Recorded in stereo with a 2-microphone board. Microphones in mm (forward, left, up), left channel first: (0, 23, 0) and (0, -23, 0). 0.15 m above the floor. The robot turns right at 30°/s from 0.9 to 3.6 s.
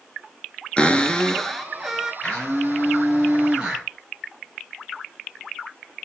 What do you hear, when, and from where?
0.8 s a cupboard door: 155° left, 0.8 m; by 2.1 s 170° right, 0.8 m
2.2 s a blender: 160° left, 2.5 m; by 3.9 s 160° right, 2.5 m